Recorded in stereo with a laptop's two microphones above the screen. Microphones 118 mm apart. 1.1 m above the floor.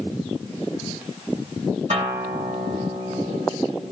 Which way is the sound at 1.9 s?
70° right (ahead or behind).